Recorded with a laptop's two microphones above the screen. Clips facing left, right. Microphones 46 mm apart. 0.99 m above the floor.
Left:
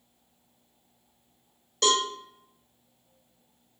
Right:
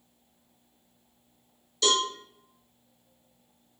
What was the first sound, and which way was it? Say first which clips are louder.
A cowbell: left 1 dB; 55° left (ahead or behind).